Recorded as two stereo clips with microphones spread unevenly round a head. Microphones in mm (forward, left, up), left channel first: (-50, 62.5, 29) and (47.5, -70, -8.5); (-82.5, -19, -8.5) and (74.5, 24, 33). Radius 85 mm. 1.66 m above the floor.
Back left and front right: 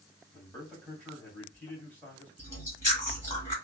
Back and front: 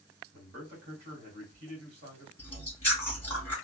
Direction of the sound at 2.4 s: 105° left.